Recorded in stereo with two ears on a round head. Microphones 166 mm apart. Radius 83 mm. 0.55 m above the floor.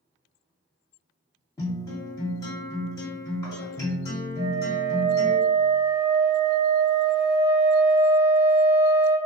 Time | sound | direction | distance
1.6 | a guitar | 20° left (ahead or behind) | 1.4 m
4.4 | a flute | 55° right (ahead or behind) | 0.8 m